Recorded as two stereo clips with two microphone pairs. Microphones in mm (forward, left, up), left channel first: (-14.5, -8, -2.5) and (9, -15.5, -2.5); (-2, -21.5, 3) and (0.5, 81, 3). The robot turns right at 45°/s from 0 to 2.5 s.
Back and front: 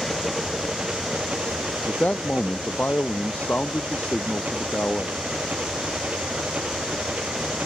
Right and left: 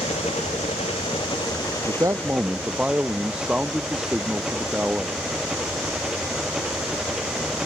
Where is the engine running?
110° right; by 7.7 s 5° left.